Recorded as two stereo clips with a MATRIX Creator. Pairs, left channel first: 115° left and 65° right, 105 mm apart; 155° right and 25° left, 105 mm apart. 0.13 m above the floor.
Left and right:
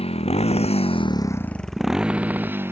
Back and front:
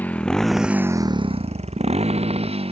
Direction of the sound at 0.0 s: 130° left.